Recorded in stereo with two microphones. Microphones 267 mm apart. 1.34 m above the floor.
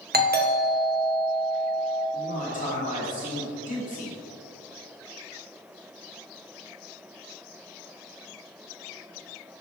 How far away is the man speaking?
About 2.5 m.